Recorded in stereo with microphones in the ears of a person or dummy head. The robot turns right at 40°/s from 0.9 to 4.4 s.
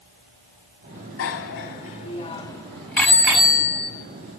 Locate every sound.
1.2 s a bicycle bell: 75° left (ahead or behind), 2.5 m; by 3.9 s 25° right (ahead or behind), 2.5 m